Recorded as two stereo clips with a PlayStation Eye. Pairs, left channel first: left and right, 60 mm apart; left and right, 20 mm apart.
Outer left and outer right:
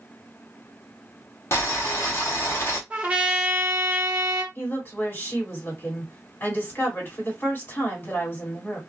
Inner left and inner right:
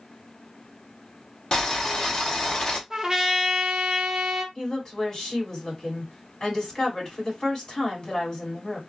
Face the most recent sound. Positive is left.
turn(degrees=35)  # may be behind; listen again after turning